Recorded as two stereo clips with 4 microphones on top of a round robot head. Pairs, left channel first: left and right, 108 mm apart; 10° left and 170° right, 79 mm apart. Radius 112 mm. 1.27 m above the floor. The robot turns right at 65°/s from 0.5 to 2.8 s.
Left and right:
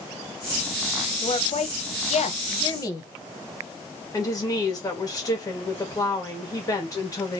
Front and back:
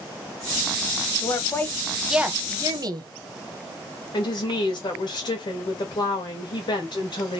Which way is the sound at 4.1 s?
35° left.